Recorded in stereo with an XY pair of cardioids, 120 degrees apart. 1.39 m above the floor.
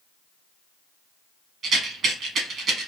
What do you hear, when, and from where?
1.6 s a rattle: 50° right, 1.6 m